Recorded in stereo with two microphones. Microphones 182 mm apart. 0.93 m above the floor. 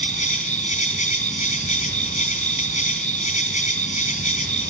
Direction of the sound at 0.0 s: 45° left (ahead or behind).